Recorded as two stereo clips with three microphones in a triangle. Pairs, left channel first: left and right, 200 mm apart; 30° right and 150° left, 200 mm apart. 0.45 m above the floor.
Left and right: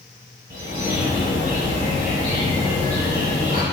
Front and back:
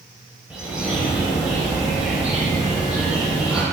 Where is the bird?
125° right, 1.9 m.